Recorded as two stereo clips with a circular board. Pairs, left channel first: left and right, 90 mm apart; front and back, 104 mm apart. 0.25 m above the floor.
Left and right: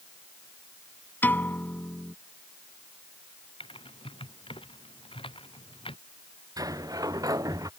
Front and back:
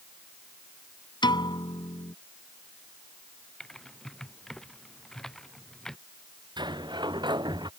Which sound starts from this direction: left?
Typing on a keyboard, at 3.6 s.